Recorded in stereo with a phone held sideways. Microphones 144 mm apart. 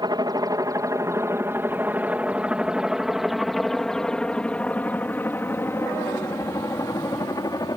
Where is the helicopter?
30° right (ahead or behind); by 7.8 s 25° left (ahead or behind).